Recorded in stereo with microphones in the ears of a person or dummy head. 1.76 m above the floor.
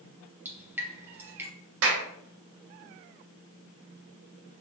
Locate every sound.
0.5 s dripping: 10° right (ahead or behind), 1.2 m
1.8 s a clap: 70° right (ahead or behind), 0.9 m